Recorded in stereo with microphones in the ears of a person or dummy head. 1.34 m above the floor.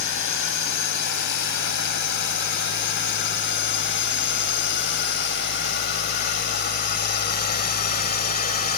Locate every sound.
0.0 s a drone: 60° left (ahead or behind); by 8.8 s 40° left (ahead or behind)